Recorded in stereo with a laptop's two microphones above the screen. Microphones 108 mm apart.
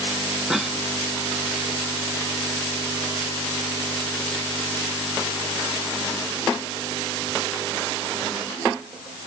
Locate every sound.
0.5 s a cough: 5° right (ahead or behind), 0.9 m